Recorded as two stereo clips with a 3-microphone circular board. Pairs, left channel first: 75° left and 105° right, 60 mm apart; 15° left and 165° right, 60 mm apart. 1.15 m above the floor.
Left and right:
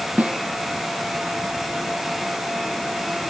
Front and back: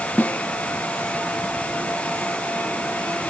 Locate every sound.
0.2 s a snare drum: 45° right